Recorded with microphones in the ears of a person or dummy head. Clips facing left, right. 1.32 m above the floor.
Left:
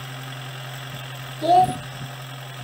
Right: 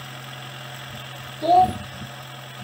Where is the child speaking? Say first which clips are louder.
Even; 10° left (ahead or behind), 0.7 m.